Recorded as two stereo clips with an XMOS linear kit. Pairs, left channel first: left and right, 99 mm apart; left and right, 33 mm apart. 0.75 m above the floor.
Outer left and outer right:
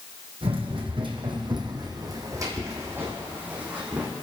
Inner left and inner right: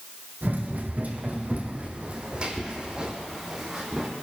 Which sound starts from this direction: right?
Running footsteps, at 0.4 s.